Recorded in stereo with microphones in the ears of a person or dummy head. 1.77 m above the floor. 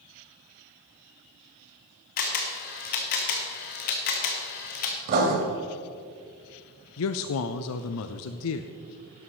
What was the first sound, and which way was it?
A camera shutter, 45° left (ahead or behind).